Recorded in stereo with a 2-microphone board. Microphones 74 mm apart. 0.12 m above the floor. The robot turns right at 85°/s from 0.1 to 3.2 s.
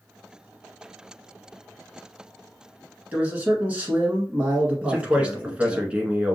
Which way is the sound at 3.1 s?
20° right (ahead or behind).